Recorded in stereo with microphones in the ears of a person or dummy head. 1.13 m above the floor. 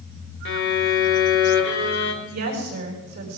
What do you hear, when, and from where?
0.5 s a violin: 65° left (ahead or behind), 2.0 m
2.2 s a woman speaking: 55° right (ahead or behind), 4 m